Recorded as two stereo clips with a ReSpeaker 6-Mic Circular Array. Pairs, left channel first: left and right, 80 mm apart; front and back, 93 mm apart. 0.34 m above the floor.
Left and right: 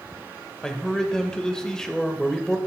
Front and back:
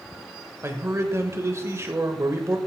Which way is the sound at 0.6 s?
165° left.